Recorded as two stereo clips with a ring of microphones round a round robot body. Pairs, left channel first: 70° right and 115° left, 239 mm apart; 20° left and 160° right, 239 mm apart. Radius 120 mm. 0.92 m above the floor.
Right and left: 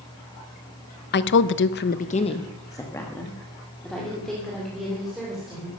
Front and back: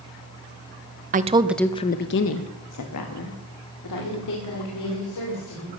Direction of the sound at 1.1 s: 105° right.